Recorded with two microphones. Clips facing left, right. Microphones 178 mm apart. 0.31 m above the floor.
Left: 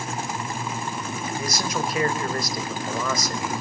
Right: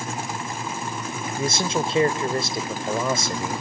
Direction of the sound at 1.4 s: 25° right (ahead or behind).